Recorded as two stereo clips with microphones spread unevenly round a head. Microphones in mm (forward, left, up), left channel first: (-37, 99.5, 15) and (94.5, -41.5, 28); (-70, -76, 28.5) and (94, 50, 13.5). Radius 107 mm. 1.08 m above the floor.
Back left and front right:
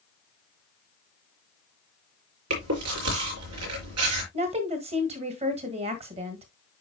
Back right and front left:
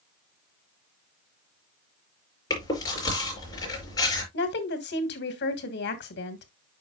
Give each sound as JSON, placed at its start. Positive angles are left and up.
{"t": 2.5, "sound": "chewing", "azimuth_deg": -70, "distance_m": 4.5}
{"t": 4.3, "sound": "a woman speaking", "azimuth_deg": -110, "distance_m": 1.6}